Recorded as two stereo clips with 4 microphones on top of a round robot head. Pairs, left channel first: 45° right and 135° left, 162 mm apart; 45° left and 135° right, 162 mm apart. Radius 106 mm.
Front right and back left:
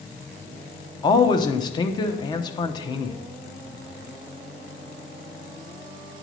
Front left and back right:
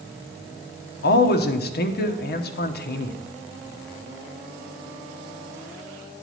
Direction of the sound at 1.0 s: 20° left.